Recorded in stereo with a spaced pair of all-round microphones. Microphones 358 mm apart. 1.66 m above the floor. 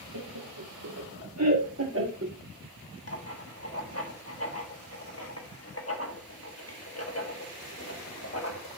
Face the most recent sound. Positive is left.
turn(degrees=40)  # may be behind; listen again after turning